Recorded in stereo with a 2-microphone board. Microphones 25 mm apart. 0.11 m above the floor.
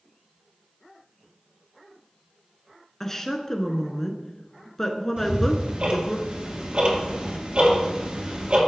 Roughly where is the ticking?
Right.